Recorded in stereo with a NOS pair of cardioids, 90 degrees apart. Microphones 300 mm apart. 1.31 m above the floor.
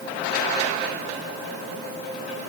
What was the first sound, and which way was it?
Only background noise.